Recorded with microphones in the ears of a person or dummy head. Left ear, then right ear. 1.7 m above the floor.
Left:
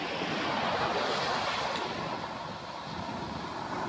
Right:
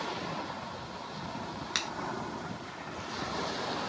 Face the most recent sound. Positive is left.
turn(degrees=-50)  # may be behind; listen again after turning